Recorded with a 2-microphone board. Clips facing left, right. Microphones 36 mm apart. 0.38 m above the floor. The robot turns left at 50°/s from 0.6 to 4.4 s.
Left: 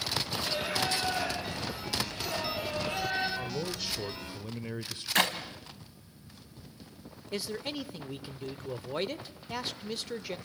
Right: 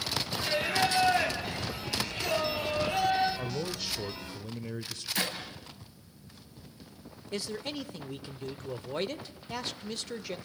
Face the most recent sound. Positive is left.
turn(degrees=10)  # may be behind; listen again after turning